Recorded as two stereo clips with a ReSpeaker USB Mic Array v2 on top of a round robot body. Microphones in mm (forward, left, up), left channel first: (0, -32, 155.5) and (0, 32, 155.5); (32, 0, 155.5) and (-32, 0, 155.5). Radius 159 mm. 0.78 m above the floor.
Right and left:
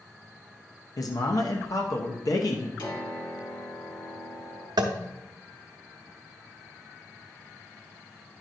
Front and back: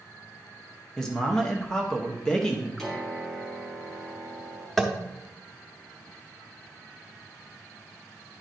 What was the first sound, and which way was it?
A man speaking, 80° right.